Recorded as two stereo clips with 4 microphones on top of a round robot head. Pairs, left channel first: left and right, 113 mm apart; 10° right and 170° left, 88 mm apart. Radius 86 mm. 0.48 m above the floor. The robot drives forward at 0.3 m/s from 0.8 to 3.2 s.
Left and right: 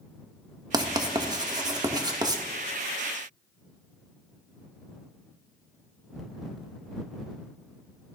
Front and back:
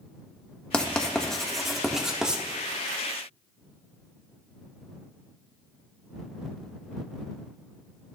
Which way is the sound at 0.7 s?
80° right.